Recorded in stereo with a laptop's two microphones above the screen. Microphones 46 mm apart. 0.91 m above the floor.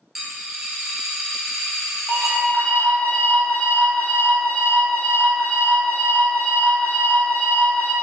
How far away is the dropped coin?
About 1.6 m.